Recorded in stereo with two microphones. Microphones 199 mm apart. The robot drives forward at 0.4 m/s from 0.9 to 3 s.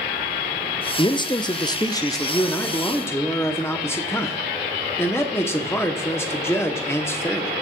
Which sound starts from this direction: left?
A man speaking, at 1.0 s.